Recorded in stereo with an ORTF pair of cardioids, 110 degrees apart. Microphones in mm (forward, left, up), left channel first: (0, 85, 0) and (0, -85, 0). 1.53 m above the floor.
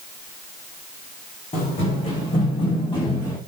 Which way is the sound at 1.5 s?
40° left.